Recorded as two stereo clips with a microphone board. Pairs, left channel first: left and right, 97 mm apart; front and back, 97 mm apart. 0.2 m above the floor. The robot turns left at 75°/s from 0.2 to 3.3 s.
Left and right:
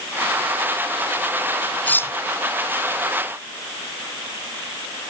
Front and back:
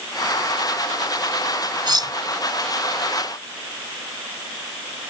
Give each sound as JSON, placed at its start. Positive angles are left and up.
{"t": 1.9, "sound": "cutlery clinking", "azimuth_deg": 160}